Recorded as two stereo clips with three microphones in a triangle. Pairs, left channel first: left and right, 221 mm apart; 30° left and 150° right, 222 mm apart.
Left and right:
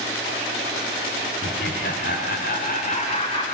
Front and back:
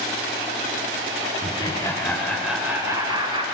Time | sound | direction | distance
1.4 | laughter | 90° left | 2 m